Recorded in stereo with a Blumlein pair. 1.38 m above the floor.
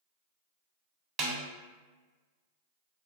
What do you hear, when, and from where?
1.2 s a snare drum: 30° right, 0.8 m